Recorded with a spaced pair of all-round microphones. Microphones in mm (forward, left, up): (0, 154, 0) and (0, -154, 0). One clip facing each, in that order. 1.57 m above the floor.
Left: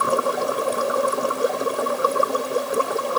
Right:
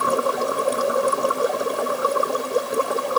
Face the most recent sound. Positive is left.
No sound to turn to.